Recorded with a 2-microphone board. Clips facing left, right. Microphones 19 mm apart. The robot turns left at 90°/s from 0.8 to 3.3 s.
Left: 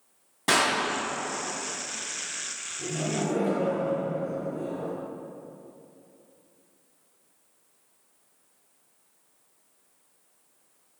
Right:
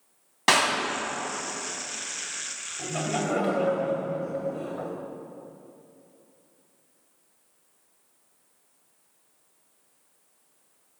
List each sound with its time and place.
0.5 s a clap: 40° right (ahead or behind), 2.5 m
2.8 s laughter: 65° right, 2.5 m; by 4.9 s 110° right, 2.5 m